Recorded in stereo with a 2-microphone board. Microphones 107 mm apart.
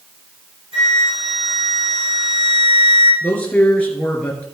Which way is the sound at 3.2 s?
15° left (ahead or behind).